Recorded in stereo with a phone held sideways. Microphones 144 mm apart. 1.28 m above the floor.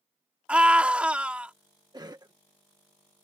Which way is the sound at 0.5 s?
10° right (ahead or behind).